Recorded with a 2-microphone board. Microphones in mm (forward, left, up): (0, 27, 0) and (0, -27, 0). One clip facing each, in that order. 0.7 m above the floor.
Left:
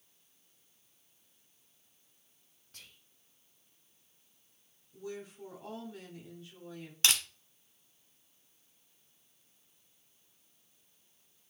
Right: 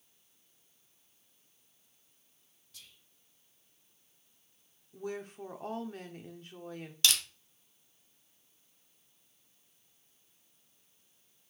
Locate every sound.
2.7 s whispering: 45° left (ahead or behind), 0.7 m
4.9 s a woman speaking: 55° right (ahead or behind), 1.4 m
7.0 s crushing: 40° left (ahead or behind), 1.4 m